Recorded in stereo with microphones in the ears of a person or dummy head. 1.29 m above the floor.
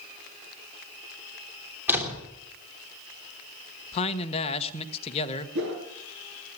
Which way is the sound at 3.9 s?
35° left (ahead or behind).